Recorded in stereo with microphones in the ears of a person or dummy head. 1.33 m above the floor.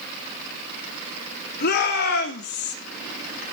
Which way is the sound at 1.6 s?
55° left (ahead or behind).